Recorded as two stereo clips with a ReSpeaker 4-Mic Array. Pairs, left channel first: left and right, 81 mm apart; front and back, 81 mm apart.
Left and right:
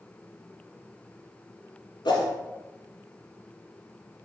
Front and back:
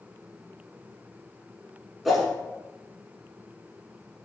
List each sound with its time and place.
2.0 s a whoosh: 90° left, 1.1 m